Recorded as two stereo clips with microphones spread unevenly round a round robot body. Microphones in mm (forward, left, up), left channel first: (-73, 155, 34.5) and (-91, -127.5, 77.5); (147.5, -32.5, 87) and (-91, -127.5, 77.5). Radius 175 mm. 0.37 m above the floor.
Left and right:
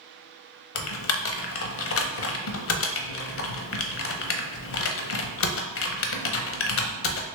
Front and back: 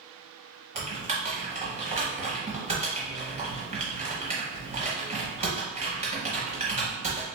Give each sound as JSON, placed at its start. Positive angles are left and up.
{"t": 0.8, "sound": "typing on a keyboard", "azimuth_deg": 130, "distance_m": 0.6}